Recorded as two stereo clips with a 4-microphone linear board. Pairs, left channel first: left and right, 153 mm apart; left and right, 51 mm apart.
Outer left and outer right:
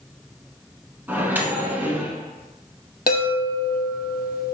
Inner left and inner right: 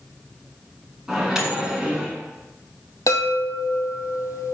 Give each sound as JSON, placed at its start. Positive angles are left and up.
{"t": 1.1, "sound": "a microwave", "side_deg": -10, "distance_m": 0.8}
{"t": 3.1, "sound": "a chime", "side_deg": 80, "distance_m": 0.7}